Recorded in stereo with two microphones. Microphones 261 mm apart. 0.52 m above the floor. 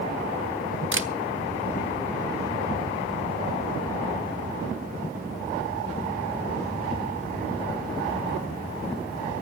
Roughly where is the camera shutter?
Right.